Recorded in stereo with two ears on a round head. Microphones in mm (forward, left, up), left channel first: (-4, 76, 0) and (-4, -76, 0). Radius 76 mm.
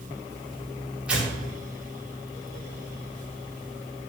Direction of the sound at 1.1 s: 5° right (ahead or behind).